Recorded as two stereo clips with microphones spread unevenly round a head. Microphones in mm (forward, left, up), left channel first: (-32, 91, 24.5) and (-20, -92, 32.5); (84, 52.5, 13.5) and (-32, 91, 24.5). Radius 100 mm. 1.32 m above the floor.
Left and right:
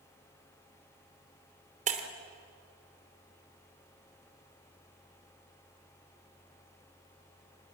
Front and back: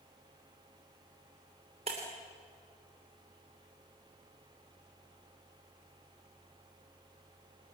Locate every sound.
1.9 s breaking glass: 135° right, 3 m